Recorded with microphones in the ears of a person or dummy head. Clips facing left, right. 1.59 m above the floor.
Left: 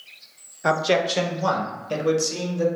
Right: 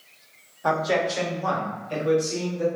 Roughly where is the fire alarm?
No fire alarm in this recording.